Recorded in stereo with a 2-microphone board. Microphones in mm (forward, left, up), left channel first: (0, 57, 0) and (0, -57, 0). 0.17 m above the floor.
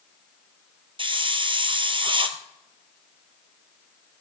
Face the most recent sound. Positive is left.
turn(degrees=-50)  # may be behind; listen again after turning